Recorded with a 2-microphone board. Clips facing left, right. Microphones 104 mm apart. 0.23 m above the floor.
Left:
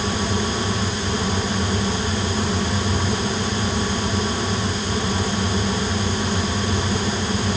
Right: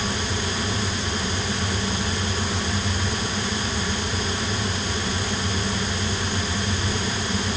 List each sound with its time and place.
Only background noise.